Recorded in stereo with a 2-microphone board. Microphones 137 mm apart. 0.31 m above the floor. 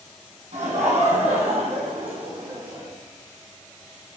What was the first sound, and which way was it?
Laughter, 60° right (ahead or behind).